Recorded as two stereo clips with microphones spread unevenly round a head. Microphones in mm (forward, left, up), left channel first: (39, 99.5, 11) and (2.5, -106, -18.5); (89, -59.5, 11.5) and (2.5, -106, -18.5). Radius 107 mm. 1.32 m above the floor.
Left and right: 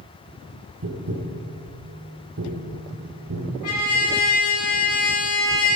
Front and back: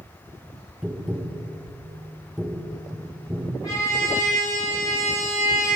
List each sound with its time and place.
0.8 s tapping: 65° right, 1.3 m
3.6 s a trumpet: 105° left, 3.5 m